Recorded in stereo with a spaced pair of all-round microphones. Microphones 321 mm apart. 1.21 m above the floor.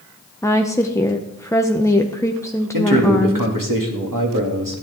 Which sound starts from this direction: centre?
A woman speaking, at 0.4 s.